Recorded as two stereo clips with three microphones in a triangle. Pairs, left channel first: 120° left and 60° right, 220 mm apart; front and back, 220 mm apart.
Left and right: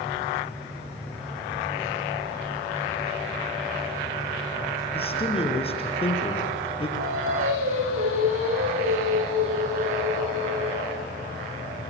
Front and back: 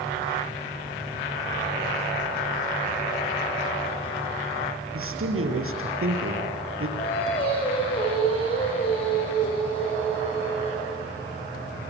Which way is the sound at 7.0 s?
65° right.